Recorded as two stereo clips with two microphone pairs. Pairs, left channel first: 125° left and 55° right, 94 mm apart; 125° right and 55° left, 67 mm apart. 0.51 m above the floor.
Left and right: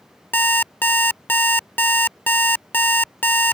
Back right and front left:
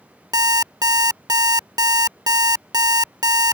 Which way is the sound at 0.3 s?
55° left.